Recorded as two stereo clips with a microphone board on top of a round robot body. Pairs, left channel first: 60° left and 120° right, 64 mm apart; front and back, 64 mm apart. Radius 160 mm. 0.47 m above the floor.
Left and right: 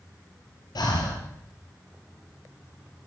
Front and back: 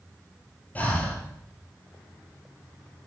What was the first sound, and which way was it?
Breathing, 70° left.